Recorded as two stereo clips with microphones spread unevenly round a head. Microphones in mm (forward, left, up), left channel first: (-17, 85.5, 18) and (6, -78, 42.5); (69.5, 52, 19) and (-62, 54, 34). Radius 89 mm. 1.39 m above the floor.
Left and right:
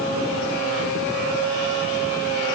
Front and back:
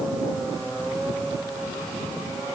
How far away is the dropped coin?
No dropped coin in this recording.